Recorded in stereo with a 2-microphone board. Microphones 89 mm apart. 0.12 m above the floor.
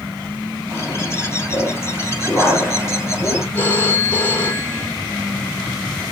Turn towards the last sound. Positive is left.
turn(degrees=25)  # may be behind; listen again after turning